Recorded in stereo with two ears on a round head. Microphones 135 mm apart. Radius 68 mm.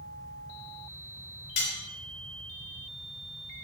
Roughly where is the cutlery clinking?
Left.